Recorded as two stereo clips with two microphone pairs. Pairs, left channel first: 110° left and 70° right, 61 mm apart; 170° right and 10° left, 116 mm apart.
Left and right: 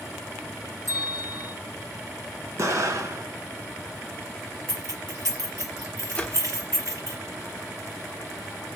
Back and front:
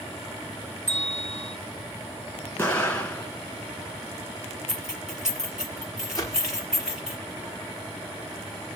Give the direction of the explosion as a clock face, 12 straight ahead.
3 o'clock.